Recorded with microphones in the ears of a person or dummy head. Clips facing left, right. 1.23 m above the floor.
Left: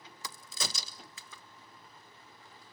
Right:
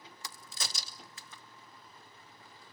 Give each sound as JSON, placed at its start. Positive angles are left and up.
{"t": 0.2, "sound": "a crack", "side_deg": 65, "distance_m": 1.0}